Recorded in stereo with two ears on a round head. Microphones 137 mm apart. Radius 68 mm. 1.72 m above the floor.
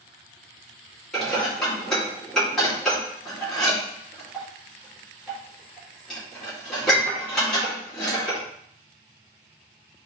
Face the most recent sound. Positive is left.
turn(degrees=5)  # may be behind; listen again after turning